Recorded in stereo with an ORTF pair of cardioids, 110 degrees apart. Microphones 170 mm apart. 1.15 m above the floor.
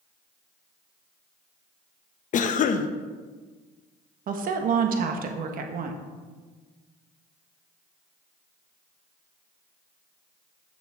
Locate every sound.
2.3 s a cough: 50° left, 1.0 m
4.3 s a woman speaking: 55° right, 1.3 m